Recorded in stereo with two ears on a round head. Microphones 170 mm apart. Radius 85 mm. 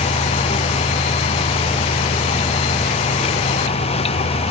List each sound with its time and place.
Only background noise.